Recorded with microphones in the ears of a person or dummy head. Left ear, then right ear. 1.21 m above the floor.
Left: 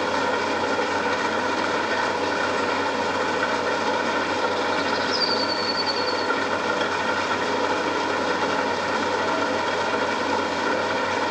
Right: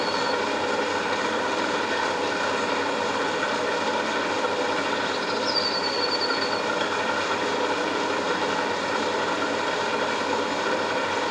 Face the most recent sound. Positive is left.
turn(degrees=10)  # may be behind; listen again after turning